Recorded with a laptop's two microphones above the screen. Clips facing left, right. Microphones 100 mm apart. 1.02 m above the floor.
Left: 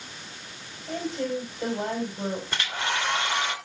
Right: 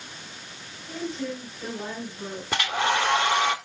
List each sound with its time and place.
0.9 s a woman speaking: 40° left (ahead or behind), 6 m
2.5 s a hair dryer: 85° right, 2 m